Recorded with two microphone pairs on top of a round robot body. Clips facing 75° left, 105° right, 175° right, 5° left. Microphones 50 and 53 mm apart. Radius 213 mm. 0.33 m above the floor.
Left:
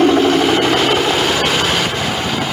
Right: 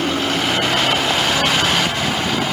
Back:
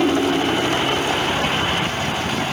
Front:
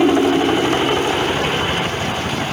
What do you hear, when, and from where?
0.0 s a helicopter: 75° left; by 2.5 s 60° left